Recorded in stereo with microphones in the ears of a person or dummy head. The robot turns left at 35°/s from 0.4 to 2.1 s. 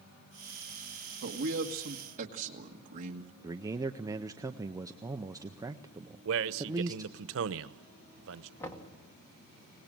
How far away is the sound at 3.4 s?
About 0.5 m.